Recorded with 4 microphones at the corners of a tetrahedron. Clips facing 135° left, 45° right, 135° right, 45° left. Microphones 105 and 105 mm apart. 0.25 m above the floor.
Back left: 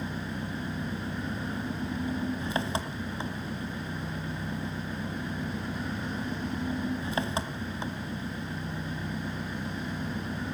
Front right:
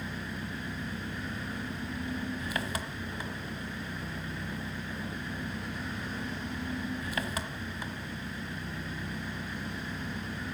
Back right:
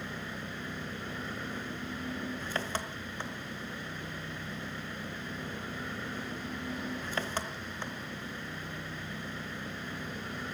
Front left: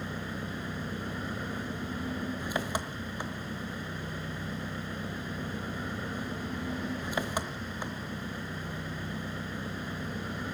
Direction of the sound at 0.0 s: 110° left.